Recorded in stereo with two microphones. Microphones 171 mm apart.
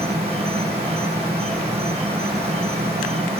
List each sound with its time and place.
0.0 s an insect: 35° right (ahead or behind), 1.1 m